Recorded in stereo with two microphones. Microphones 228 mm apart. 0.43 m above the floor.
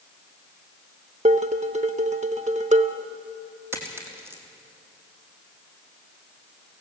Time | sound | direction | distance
1.2 | dishes clattering | 30° right (ahead or behind) | 0.8 m
3.7 | a dropped coin | 10° right (ahead or behind) | 3 m